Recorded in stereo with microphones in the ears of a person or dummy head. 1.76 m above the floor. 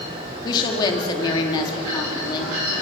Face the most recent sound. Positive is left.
turn(degrees=25)  # may be behind; listen again after turning